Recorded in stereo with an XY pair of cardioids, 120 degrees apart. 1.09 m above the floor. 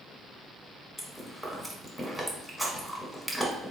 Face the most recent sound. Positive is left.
turn(degrees=0)